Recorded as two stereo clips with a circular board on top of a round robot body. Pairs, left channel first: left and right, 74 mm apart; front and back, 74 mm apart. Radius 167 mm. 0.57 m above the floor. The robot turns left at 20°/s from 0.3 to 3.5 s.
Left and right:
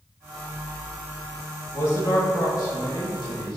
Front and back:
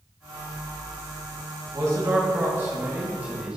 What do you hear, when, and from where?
1.7 s a man speaking: 140° left, 3.5 m; by 3.6 s 105° left, 3.5 m